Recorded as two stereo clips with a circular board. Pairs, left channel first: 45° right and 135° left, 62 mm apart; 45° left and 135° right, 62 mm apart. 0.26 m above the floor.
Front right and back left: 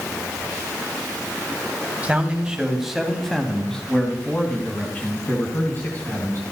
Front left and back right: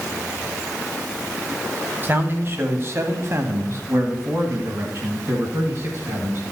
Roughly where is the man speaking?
Behind.